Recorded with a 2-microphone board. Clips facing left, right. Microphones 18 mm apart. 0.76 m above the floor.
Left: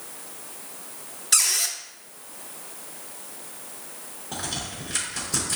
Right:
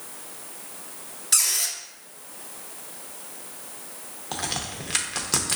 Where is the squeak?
10° left (ahead or behind), 0.6 m.